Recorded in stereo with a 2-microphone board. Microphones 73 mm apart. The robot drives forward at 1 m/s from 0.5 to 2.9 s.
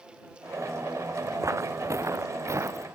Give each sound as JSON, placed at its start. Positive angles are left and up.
{"t": 1.4, "sound": "footsteps", "side_deg": -40}